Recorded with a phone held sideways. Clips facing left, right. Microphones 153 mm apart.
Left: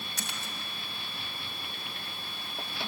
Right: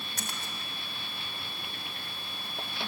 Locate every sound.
0.2 s a splash: 50° right (ahead or behind), 3.5 m